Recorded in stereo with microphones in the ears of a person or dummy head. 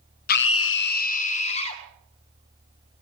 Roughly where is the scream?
Left.